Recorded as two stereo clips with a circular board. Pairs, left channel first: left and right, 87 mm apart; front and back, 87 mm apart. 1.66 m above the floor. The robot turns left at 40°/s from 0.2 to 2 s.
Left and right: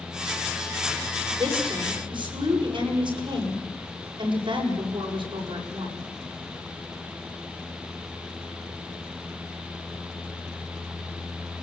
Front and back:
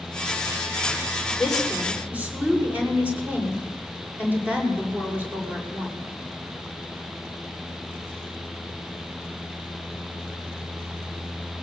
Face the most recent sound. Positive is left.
turn(degrees=-110)